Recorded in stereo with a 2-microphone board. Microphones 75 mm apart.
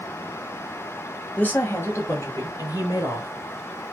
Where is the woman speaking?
20° left (ahead or behind), 1.1 m; by 3.3 s 60° left (ahead or behind), 2.0 m.